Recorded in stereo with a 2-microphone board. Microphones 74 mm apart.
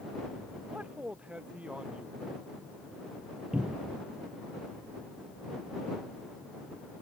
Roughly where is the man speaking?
Centre.